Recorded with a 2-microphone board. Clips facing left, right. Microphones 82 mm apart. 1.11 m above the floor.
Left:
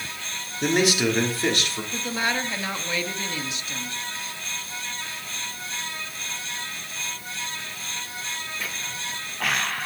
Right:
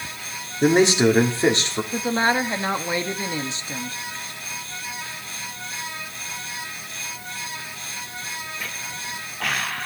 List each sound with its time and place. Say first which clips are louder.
0.6 s a man speaking: right 6 dB; 30° right (ahead or behind), 3.5 m
1.9 s a woman speaking: right 6 dB; 30° right (ahead or behind), 1.5 m